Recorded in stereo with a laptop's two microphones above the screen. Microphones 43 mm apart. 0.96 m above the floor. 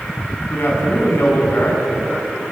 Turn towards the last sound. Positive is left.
turn(degrees=85)